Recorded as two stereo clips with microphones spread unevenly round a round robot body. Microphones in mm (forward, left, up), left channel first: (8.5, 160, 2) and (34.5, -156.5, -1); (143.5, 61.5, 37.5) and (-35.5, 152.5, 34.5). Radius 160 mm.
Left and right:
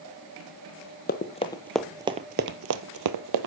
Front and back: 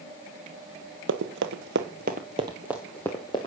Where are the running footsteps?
155° left, 0.9 m; by 3.5 s 100° right, 1.0 m.